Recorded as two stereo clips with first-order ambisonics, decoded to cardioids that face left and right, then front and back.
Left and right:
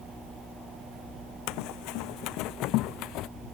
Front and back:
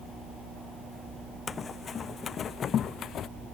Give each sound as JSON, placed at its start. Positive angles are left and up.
{"t": 1.5, "sound": "running footsteps", "azimuth_deg": 70}